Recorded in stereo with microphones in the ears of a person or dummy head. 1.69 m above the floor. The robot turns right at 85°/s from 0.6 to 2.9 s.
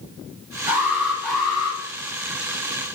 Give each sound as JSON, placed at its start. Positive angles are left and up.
{"t": 0.7, "sound": "an alarm", "azimuth_deg": -35, "distance_m": 1.1}